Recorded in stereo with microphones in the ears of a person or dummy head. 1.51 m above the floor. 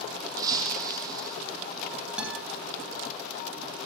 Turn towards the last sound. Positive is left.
turn(degrees=-10)  # may be behind; listen again after turning